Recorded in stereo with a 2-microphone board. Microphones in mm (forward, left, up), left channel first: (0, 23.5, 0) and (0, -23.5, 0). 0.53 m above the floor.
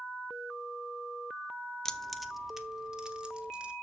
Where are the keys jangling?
15° left (ahead or behind), 0.5 m; by 3.7 s 25° right (ahead or behind), 1.4 m.